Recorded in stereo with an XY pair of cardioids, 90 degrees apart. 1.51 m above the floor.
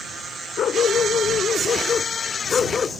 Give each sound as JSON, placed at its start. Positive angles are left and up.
{"t": 0.6, "sound": "a dog barking", "azimuth_deg": 70}